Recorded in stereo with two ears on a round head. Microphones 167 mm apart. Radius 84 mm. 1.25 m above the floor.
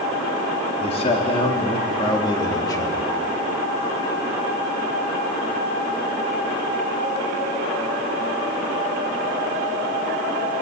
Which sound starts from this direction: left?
A man speaking, at 0.8 s.